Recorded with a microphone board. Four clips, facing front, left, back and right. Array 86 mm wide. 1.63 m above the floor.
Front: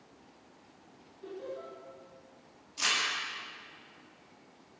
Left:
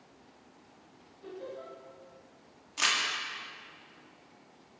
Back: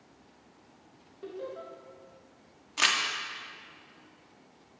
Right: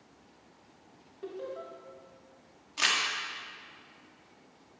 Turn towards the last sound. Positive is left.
turn(degrees=-175)